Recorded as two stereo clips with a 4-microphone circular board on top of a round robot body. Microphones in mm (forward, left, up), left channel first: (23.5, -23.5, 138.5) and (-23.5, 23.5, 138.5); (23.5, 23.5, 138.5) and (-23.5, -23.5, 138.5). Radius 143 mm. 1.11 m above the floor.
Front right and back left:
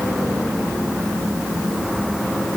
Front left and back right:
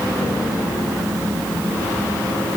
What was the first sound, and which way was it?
Only background noise.